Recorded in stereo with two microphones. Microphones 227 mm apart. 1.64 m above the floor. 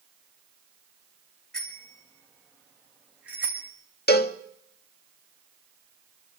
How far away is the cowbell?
About 0.8 m.